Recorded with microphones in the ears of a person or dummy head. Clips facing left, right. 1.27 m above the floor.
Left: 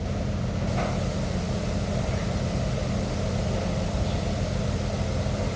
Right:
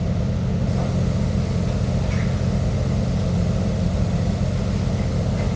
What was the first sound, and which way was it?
Only background noise.